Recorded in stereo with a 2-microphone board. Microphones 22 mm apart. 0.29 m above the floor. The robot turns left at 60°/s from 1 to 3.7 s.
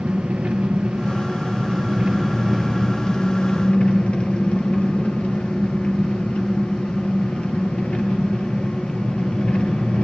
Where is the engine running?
85° right, 2.5 m; by 10.0 s 110° left, 2.5 m.